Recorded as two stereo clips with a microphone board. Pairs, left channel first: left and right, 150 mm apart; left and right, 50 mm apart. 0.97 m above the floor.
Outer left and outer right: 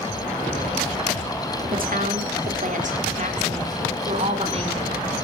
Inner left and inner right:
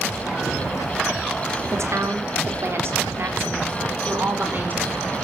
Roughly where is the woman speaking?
Right.